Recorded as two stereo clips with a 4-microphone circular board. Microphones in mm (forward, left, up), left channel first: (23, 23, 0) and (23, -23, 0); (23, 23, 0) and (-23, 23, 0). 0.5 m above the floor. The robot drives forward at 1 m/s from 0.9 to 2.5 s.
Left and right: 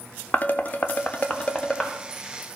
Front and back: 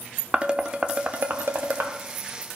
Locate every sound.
0.3 s dishes clattering: 120° left, 0.7 m; by 1.9 s 160° left, 1.4 m